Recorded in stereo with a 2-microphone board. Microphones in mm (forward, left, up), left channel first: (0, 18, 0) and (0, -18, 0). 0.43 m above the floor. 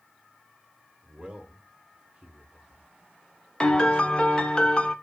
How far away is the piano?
About 0.6 m.